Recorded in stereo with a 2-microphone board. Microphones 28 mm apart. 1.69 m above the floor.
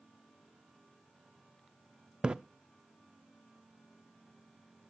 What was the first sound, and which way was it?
A splash, 35° right (ahead or behind).